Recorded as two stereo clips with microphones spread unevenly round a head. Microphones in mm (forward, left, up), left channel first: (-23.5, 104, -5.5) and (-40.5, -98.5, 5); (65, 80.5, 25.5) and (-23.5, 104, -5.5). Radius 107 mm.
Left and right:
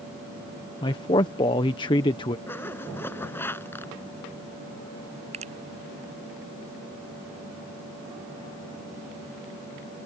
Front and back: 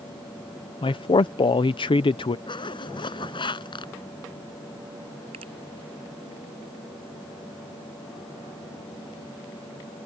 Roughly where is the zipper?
Ahead.